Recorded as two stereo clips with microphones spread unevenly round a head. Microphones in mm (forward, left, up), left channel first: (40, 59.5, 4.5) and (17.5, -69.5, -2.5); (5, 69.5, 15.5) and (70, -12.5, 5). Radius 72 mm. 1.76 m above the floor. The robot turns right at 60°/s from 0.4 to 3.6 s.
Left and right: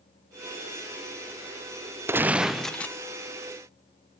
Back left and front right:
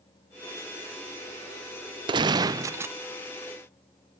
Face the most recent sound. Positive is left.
turn(degrees=55)